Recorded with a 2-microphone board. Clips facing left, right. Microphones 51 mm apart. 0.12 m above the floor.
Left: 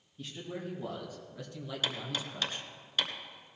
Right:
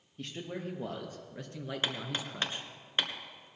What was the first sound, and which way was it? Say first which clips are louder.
A man speaking: right 1 dB; 50° right (ahead or behind).